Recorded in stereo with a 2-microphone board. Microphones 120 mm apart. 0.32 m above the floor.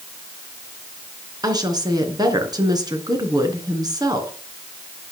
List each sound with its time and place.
1.4 s a woman speaking: 35° right (ahead or behind), 4 m